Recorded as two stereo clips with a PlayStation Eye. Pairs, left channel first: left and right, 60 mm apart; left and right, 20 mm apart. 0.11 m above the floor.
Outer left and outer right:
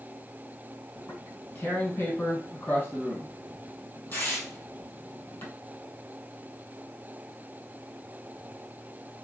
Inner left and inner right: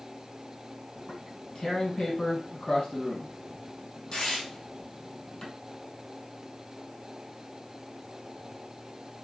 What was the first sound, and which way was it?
Tearing paper, 35° left (ahead or behind).